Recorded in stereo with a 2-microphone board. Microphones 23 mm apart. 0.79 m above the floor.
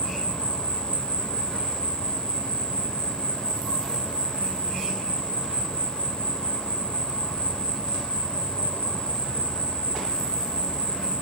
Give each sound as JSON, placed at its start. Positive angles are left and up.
{"t": 0.0, "sound": "an insect", "side_deg": 60, "distance_m": 1.0}